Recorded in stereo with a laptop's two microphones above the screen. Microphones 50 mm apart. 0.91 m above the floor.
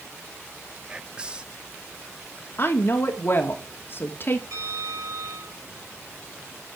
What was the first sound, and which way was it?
Whispering, 20° right (ahead or behind).